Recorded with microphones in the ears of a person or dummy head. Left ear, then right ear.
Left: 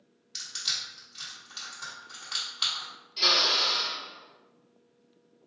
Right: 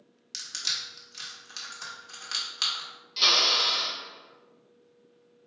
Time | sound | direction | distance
0.3 | crushing | 75° right (ahead or behind) | 1.4 m
3.2 | a drill | 60° right (ahead or behind) | 1.9 m